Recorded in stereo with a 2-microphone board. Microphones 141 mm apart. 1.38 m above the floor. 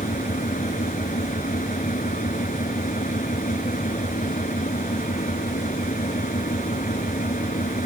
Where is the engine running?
70° left (ahead or behind).